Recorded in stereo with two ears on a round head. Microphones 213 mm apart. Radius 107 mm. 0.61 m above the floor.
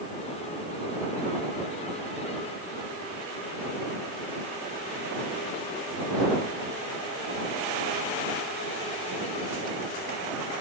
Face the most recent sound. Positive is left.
No sound to turn to.